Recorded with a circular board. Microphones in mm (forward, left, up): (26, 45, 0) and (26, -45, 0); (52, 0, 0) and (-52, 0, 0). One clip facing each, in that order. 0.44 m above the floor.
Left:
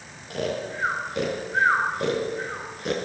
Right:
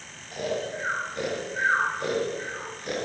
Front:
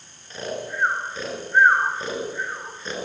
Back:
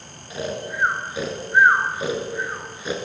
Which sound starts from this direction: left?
Snoring, at 0.3 s.